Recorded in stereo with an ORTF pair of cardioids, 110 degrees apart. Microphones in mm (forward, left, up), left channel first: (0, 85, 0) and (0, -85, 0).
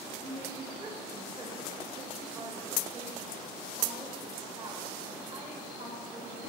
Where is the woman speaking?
20° right, 1.8 m.